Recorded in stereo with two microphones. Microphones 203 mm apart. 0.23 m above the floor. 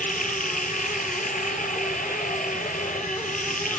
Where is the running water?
40° left (ahead or behind), 3 m.